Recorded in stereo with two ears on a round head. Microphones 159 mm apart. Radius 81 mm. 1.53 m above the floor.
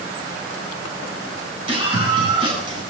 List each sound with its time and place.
1.7 s a scream: 30° right (ahead or behind), 7 m; by 2.8 s 25° right (ahead or behind), 8.5 m